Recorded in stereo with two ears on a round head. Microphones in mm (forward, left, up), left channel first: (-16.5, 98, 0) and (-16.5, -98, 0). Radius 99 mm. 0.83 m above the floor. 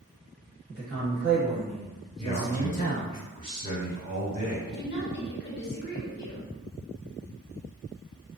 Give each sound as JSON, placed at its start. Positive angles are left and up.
{"t": 0.7, "sound": "a man speaking", "side_deg": -45, "distance_m": 1.9}
{"t": 2.2, "sound": "a man speaking", "side_deg": -35, "distance_m": 1.9}
{"t": 4.7, "sound": "a woman speaking", "side_deg": 50, "distance_m": 1.0}